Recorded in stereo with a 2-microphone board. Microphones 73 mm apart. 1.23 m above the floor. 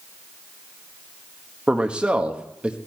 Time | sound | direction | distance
1.7 | a man speaking | 15° right (ahead or behind) | 1.2 m